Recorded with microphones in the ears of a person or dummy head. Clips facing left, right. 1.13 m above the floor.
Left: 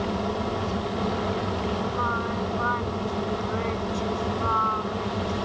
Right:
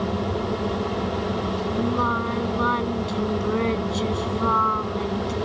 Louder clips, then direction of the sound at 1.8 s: Right 5 dB; 55° right (ahead or behind).